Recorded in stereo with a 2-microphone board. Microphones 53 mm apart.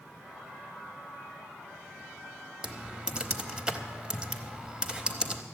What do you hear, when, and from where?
2.6 s typing on a keyboard: 15° right (ahead or behind), 1.0 m